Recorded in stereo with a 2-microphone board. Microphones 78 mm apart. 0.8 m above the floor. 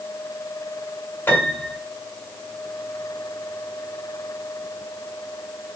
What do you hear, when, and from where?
1.3 s a piano: 25° left (ahead or behind), 3.5 m